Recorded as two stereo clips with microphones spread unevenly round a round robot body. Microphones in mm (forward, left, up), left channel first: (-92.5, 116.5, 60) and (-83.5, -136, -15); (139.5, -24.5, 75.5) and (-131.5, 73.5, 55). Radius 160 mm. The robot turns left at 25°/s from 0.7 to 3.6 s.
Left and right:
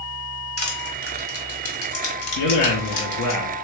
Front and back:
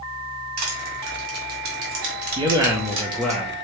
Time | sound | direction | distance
0.6 | crushing | 150° left | 1.9 m
2.4 | a man speaking | 95° left | 0.8 m